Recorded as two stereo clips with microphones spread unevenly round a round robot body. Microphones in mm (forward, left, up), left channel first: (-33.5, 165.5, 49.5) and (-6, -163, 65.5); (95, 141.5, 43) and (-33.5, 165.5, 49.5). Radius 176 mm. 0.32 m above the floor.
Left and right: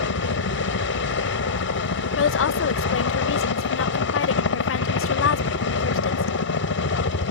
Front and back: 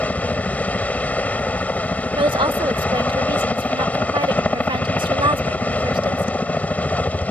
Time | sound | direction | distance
0.0 | a helicopter | 65° left | ?
2.2 | a woman speaking | 125° left | ?